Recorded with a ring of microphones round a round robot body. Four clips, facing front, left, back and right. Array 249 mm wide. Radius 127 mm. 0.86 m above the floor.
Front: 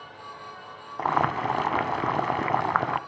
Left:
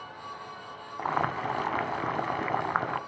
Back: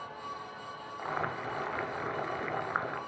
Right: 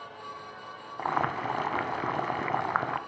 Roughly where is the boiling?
Ahead.